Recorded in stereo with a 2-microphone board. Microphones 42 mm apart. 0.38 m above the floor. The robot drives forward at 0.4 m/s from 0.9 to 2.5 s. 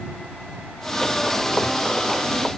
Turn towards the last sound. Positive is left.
No sound to turn to.